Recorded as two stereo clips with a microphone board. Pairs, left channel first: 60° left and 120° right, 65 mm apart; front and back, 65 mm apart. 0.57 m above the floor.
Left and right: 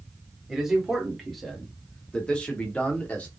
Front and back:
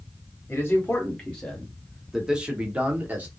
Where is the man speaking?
40° right, 1.1 m; by 3.3 s 125° left, 1.4 m.